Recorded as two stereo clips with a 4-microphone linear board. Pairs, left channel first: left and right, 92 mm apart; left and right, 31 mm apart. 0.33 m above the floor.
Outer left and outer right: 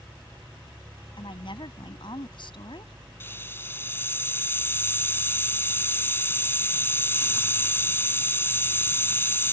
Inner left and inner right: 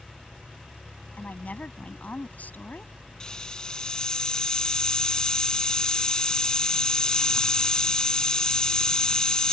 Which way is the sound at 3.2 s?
25° left (ahead or behind).